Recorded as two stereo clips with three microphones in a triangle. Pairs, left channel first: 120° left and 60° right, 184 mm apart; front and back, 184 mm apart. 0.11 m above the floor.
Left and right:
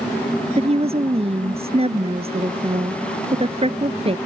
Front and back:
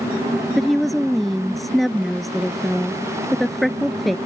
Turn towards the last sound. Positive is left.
turn(degrees=-90)